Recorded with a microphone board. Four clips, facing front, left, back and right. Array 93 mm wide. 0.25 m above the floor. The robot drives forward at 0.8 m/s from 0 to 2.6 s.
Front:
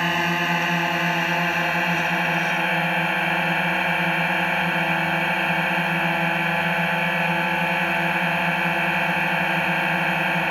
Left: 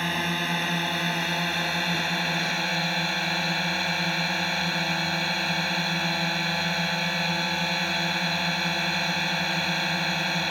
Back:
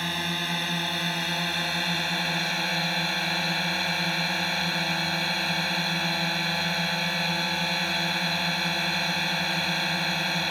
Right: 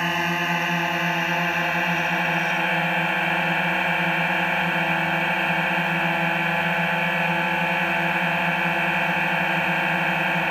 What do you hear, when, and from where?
0.0 s a drone: 30° right; by 10.5 s 40° right